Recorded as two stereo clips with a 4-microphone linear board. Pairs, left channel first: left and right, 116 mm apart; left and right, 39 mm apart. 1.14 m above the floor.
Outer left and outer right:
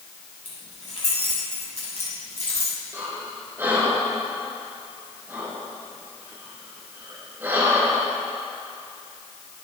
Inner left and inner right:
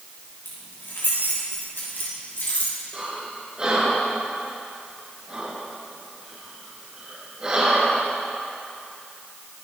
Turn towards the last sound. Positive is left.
turn(degrees=-20)  # may be behind; listen again after turning